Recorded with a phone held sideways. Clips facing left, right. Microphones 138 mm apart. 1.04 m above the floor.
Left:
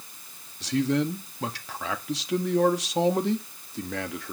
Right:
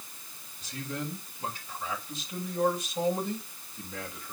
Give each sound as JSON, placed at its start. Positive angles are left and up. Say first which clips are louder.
{"t": 0.6, "sound": "a man speaking", "louder": "left 13 dB", "side_deg": 80, "distance_m": 1.7}